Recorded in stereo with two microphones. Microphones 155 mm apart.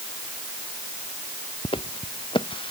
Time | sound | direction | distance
1.6 | footsteps | 35° left (ahead or behind) | ?